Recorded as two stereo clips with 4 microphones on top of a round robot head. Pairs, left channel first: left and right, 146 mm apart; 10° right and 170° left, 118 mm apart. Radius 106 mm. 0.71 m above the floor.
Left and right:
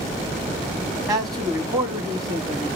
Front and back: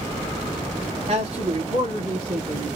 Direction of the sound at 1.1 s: 150° right.